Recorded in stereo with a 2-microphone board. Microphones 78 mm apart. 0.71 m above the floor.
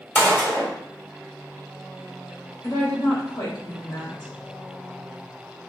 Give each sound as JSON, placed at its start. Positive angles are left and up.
{"t": 0.1, "sound": "a gunshot", "side_deg": 30, "distance_m": 2.0}
{"t": 2.6, "sound": "a woman speaking", "side_deg": 70, "distance_m": 2.5}